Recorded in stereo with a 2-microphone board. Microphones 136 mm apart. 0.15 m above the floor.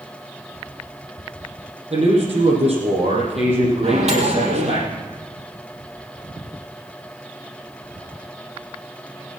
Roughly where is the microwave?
Right.